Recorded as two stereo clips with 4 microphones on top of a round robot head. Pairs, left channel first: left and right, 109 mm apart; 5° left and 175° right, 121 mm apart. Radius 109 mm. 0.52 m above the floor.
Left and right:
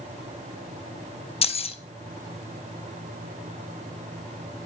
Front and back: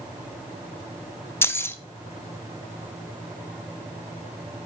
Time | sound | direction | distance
1.4 | keys jangling | 75° left | 0.8 m